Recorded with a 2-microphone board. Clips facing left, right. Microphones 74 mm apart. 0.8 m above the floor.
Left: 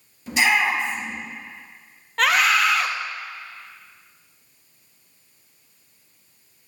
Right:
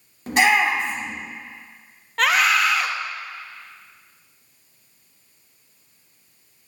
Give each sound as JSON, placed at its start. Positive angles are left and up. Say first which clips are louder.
{"t": 0.3, "sound": "a shout", "louder": "right 2 dB", "side_deg": -55, "distance_m": 2.5}
{"t": 2.2, "sound": "a scream", "louder": "even", "side_deg": 0, "distance_m": 0.9}